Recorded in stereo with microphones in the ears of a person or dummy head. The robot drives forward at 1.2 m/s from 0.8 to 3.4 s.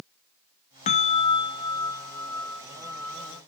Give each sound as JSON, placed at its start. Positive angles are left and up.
{"t": 0.9, "sound": "a bell", "side_deg": 35}